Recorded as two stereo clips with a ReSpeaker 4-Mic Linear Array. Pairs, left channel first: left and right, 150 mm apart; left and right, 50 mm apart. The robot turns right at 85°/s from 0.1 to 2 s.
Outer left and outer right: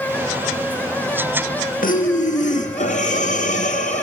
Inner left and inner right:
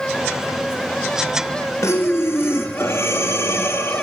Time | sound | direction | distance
1.8 | breathing | 70° left (ahead or behind) | 1.7 m